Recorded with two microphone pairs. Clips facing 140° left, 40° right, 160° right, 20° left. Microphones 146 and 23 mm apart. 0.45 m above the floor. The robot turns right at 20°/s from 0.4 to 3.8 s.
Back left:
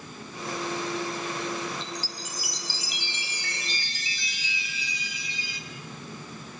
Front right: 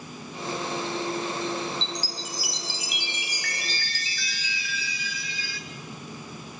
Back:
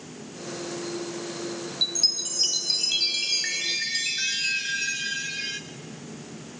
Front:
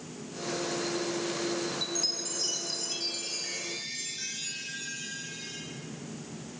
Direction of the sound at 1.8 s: 165° left.